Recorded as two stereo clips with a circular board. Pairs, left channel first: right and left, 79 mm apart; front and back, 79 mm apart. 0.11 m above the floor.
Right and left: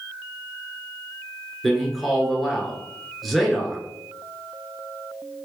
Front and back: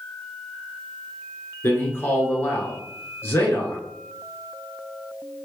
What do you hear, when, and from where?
1.6 s a man speaking: straight ahead, 1.3 m